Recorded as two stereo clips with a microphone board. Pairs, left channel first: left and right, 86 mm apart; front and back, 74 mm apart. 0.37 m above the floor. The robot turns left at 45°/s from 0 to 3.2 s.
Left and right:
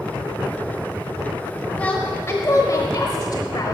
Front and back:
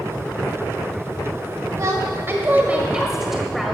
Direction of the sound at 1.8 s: 160° left.